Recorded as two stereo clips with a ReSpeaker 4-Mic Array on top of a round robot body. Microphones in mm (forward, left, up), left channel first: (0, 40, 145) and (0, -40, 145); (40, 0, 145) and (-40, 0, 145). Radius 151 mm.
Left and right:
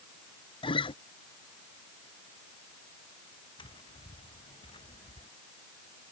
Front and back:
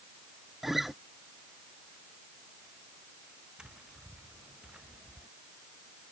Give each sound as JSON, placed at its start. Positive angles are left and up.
{"t": 0.6, "sound": "a guitar", "azimuth_deg": 90}
{"t": 3.6, "sound": "tapping", "azimuth_deg": 100}